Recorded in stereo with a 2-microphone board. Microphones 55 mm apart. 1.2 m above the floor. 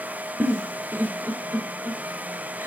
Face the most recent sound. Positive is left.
turn(degrees=-45)  # may be behind; listen again after turning